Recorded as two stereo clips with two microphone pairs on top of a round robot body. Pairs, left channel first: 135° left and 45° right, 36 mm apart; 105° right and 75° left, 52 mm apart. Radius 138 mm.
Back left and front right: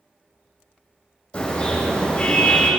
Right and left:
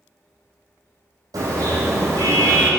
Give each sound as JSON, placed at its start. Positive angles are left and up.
{"t": 1.3, "sound": "a car horn", "azimuth_deg": 75, "distance_m": 8.5}